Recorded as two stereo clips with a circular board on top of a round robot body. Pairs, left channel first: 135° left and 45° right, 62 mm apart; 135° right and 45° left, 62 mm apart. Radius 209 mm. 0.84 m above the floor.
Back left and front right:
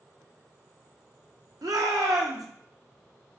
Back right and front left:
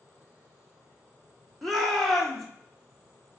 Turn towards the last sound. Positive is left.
turn(degrees=-50)